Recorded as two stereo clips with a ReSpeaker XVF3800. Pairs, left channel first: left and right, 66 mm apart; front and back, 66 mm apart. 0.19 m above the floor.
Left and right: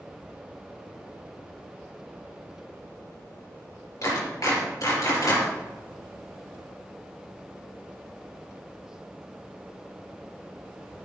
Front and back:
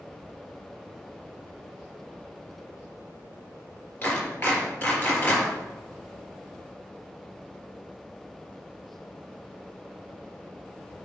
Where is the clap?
65° left, 3.5 m.